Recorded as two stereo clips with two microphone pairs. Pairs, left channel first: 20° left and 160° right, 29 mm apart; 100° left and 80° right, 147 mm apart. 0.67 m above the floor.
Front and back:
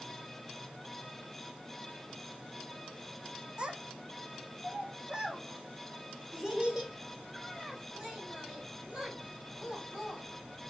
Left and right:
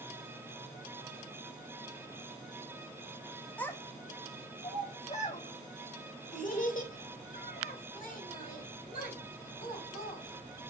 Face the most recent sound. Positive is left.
turn(degrees=125)